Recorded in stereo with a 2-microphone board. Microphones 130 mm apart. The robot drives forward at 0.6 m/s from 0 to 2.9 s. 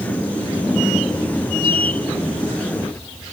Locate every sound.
Only background noise.